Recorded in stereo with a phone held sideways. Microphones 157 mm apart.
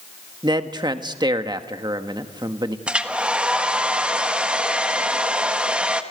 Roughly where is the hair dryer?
Centre.